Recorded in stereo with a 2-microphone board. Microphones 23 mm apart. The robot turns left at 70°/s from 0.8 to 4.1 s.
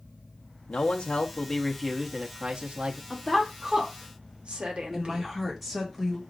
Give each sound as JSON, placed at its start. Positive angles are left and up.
{"t": 0.7, "sound": "a man speaking", "azimuth_deg": 70, "distance_m": 0.8}
{"t": 3.1, "sound": "a woman speaking", "side_deg": 15, "distance_m": 1.1}
{"t": 4.9, "sound": "a woman speaking", "side_deg": -5, "distance_m": 1.6}